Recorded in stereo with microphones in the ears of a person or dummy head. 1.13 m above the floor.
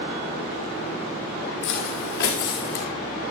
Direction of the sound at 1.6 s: 55° left (ahead or behind).